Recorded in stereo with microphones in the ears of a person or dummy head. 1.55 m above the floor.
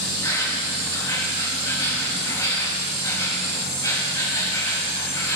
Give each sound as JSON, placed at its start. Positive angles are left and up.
{"t": 0.0, "sound": "an insect", "side_deg": 20, "distance_m": 3.5}